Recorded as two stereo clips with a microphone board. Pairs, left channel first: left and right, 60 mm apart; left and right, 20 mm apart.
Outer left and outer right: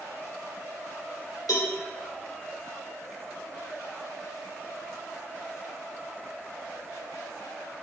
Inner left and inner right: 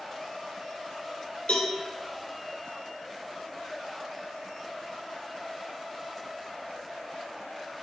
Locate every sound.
1.5 s a cowbell: 85° left, 1.8 m